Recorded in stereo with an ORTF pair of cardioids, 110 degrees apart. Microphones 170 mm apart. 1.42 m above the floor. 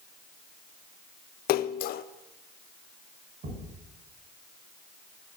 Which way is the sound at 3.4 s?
50° right.